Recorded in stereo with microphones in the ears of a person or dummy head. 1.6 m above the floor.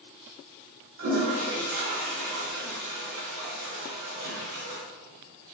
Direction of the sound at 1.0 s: 45° right (ahead or behind).